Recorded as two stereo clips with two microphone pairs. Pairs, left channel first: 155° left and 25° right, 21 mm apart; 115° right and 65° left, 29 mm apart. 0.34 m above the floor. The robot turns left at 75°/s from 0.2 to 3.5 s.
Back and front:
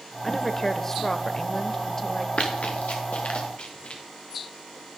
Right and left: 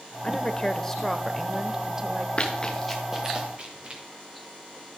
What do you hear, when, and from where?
0.2 s a woman speaking: 125° right, 0.9 m; by 2.3 s 85° left, 0.9 m
2.4 s running footsteps: 165° right, 2.5 m; by 4.0 s 115° left, 4 m